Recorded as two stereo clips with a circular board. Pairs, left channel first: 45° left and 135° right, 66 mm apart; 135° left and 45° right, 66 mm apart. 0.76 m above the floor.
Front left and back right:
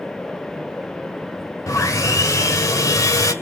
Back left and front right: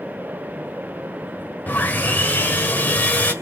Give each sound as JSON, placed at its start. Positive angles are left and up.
{"t": 1.7, "sound": "sawing", "azimuth_deg": 75, "distance_m": 1.5}